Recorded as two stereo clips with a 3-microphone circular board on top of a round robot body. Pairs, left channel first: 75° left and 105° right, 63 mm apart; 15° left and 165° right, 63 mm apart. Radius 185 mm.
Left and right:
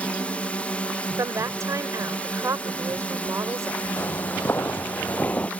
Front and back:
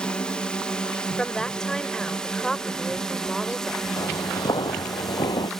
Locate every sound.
0.0 s a drone: 60° left; by 5.6 s 90° left
1.2 s a woman speaking: 65° right
4.0 s footsteps: 25° left; by 5.5 s 5° left